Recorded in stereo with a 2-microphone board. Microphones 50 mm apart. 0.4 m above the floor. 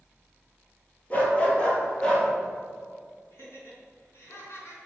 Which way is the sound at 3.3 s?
55° left (ahead or behind).